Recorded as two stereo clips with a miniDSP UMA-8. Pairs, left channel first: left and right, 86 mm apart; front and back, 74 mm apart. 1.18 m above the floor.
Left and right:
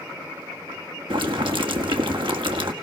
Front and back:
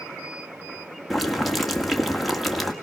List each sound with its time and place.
1.1 s boiling: 90° right, 1.6 m